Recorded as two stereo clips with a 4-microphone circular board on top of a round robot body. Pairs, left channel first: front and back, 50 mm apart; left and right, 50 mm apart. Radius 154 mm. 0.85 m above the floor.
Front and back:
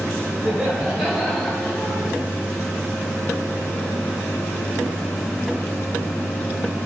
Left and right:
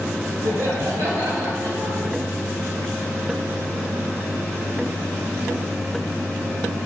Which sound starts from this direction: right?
Laughter, at 0.5 s.